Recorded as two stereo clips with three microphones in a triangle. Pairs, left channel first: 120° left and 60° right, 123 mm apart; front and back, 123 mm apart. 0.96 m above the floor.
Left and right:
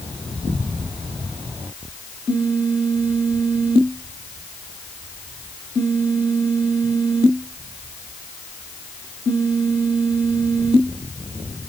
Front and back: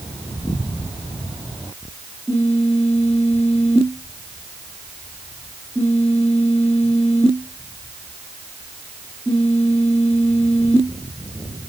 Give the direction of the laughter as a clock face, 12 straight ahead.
No laughter in this recording.